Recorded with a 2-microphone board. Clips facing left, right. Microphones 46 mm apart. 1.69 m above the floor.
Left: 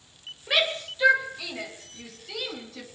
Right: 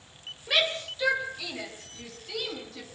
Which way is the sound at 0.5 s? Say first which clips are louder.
Left 1 dB; 10° left (ahead or behind).